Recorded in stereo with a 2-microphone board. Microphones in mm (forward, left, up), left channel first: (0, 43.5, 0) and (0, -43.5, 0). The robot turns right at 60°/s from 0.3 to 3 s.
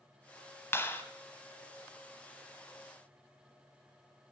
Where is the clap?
30° left (ahead or behind), 0.8 m; by 1.0 s 25° left (ahead or behind), 0.8 m.